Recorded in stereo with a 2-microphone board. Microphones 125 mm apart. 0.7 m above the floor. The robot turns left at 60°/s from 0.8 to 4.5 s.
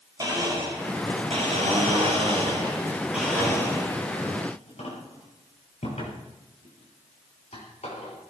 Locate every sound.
0.2 s a blender: 35° right (ahead or behind), 7.5 m; by 8.2 s 75° left (ahead or behind), 7.5 m